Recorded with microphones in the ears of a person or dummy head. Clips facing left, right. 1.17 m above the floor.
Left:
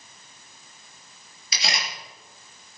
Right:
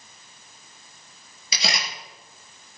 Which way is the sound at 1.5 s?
85° right.